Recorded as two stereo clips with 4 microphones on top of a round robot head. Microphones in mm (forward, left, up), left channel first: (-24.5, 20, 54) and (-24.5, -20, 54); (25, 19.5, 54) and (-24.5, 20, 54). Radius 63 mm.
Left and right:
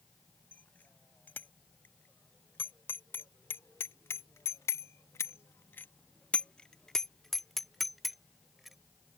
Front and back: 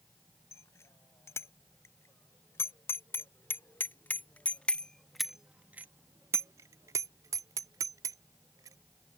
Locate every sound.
0.5 s a bicycle bell: 30° left; by 8.8 s 175° right